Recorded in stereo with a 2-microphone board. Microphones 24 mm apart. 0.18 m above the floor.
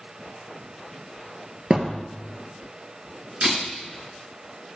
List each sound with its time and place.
1.7 s a thud: 35° right (ahead or behind), 1.0 m
3.4 s a camera shutter: 55° right (ahead or behind), 3 m